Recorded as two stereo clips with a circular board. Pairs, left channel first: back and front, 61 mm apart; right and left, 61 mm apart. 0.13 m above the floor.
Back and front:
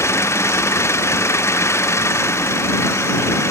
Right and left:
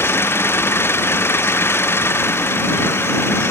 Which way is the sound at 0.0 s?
140° right.